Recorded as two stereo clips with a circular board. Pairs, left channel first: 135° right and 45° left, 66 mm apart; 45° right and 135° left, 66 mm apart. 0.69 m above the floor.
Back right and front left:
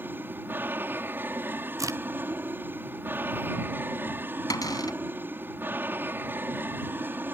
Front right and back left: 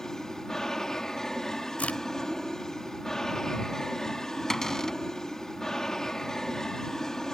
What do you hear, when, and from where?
0.0 s an aircraft: 30° left
1.8 s a crack: 20° left
4.5 s a cupboard door: 125° right